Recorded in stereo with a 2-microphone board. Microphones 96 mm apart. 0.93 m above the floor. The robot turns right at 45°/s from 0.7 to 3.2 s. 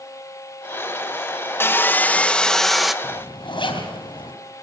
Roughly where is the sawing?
Behind left.